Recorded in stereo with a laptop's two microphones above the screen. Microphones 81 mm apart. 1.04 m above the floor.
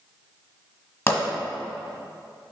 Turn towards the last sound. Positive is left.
turn(degrees=35)  # may be behind; listen again after turning